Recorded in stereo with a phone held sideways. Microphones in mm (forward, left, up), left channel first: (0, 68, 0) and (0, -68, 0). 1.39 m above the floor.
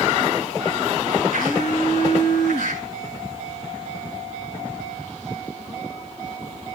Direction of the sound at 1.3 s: 80° left.